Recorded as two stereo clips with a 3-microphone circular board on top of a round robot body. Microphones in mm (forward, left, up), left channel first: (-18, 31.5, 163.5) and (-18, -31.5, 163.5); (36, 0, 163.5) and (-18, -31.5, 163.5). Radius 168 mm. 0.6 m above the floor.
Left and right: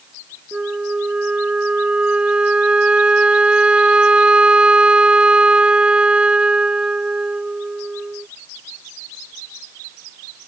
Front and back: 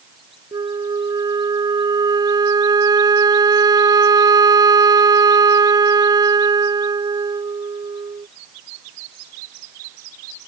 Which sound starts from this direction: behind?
A flute, at 0.5 s.